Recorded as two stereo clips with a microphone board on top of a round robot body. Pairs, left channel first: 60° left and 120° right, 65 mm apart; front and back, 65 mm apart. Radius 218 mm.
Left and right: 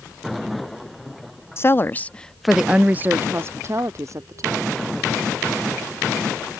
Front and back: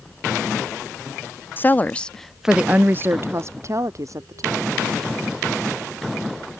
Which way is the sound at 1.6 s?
40° left.